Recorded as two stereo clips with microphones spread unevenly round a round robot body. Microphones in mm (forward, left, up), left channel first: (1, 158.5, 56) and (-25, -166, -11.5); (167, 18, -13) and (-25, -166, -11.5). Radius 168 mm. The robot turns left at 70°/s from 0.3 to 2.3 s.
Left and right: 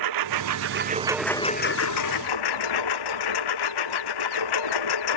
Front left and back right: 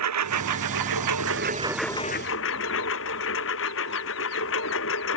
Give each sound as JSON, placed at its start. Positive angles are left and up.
{"t": 0.0, "sound": "a lawn mower", "azimuth_deg": -120}